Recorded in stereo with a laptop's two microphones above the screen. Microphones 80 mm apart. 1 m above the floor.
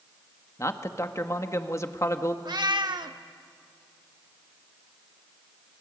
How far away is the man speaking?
About 1.7 m.